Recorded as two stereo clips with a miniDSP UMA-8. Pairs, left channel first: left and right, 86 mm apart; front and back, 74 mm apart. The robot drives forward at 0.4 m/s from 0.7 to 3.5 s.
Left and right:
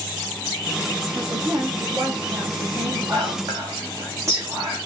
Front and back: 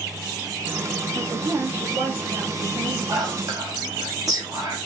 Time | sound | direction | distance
1.1 | a woman speaking | 135° right | 6.5 m
3.1 | whispering | 145° right | 7 m